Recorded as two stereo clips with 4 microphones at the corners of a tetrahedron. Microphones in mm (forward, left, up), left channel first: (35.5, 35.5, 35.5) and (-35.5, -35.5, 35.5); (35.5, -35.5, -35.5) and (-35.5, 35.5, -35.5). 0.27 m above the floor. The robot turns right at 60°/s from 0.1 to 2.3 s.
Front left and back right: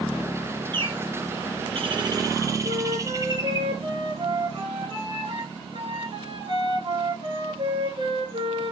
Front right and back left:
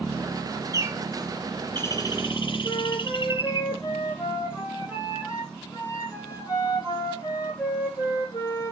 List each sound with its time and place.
0.7 s a bird: 170° right, 1.4 m; by 3.6 s 75° right, 1.4 m
2.6 s a flute: 100° right, 9.5 m